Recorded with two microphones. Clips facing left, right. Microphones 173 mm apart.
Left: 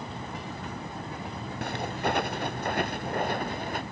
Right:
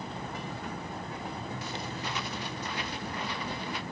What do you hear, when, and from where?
1.6 s footsteps: 60° left (ahead or behind); by 3.8 s 50° left (ahead or behind)